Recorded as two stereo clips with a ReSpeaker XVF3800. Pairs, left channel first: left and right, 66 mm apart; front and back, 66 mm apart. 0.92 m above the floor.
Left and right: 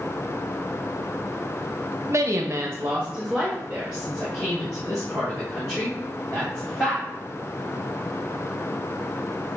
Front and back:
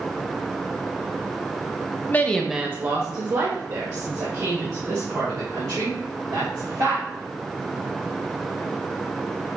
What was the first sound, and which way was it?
A woman speaking, 55° right.